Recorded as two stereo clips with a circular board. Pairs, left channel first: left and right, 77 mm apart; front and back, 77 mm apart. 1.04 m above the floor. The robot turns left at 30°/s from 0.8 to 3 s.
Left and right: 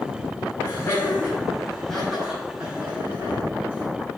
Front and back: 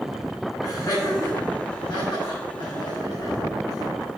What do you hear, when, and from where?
0.6 s laughter: 45° left, 2.5 m; by 3.9 s 25° right, 2.5 m